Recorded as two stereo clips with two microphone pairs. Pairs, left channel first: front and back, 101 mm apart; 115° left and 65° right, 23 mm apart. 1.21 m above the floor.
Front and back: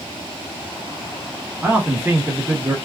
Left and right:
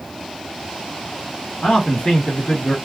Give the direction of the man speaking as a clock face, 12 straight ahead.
8 o'clock.